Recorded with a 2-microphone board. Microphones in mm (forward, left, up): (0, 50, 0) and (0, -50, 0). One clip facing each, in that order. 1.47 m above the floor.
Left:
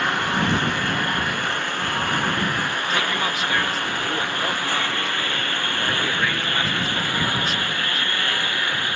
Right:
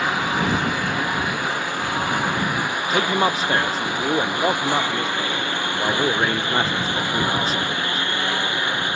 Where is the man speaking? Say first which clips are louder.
Right 7 dB; 40° right (ahead or behind).